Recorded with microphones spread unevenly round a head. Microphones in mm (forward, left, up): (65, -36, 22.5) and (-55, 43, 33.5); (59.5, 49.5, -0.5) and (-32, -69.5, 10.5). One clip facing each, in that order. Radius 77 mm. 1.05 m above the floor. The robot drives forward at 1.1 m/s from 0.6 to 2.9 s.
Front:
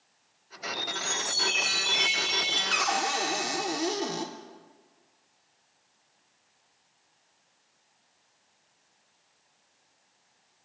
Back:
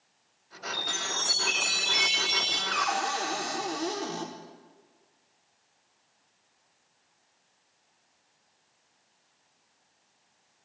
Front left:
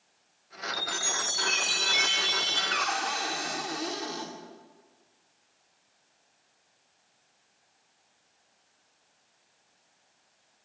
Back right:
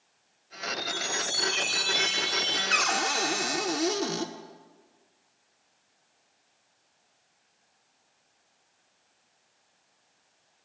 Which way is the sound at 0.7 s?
110° left.